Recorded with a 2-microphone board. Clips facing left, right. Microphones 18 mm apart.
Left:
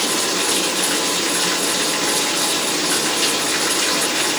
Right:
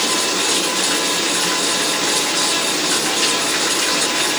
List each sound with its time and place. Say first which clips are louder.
0.0 s running water: right 1 dB; centre (ahead or behind)